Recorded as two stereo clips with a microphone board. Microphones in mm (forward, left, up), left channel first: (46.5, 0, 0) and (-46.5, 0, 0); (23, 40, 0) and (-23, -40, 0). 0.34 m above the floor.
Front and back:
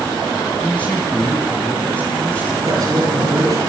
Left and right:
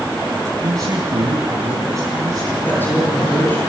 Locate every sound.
0.6 s a man speaking: 75° right, 2.5 m
2.6 s a woman speaking: 130° left, 7 m